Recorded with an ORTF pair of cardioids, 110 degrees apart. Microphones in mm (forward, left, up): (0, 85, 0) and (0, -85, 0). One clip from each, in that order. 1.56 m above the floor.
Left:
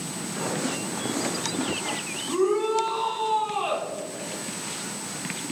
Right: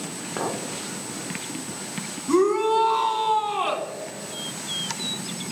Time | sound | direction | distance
0.4 | a clink | 60° right | 1.3 m
2.3 | a shout | 40° right | 2 m